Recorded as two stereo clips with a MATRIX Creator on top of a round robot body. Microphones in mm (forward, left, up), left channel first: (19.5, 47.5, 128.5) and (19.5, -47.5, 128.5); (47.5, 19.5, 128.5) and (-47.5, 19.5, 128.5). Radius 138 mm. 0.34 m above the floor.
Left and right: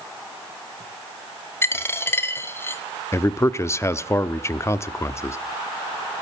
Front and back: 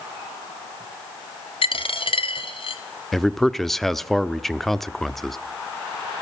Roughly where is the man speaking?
Left.